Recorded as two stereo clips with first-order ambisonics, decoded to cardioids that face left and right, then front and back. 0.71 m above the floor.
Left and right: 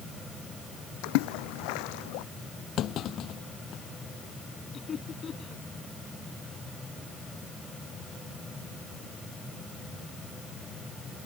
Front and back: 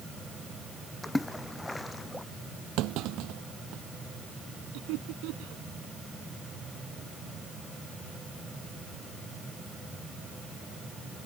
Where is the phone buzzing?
No phone buzzing in this recording.